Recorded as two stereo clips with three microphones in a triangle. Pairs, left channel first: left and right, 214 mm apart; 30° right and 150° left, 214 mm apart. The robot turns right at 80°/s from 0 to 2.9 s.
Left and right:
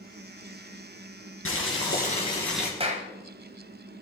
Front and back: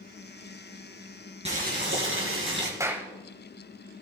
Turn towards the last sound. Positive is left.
turn(degrees=-130)